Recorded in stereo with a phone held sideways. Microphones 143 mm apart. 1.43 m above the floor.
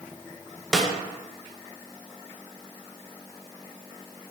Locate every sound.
0.7 s a snare drum: centre (ahead or behind), 0.6 m